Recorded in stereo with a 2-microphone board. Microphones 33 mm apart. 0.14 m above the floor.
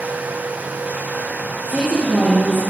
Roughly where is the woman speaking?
Right.